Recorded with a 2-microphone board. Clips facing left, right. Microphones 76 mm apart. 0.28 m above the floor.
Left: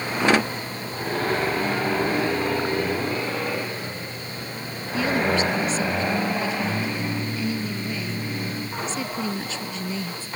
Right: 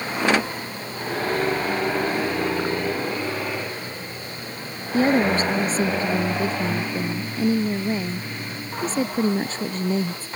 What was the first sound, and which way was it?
A woman speaking, 40° right (ahead or behind).